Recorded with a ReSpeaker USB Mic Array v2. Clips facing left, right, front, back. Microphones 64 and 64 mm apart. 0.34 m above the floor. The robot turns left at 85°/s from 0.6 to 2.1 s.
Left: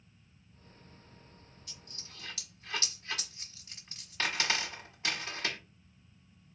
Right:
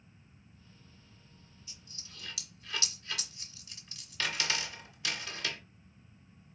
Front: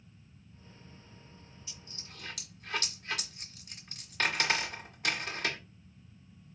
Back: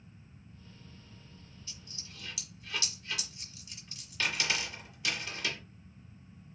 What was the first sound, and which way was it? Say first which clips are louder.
A dropped coin: left 2 dB, front 1 dB; 75° left.